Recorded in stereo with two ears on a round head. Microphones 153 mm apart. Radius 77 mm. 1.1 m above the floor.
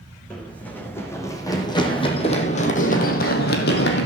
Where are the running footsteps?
5° left (ahead or behind), 4.5 m; by 4.0 s 70° left (ahead or behind), 3 m.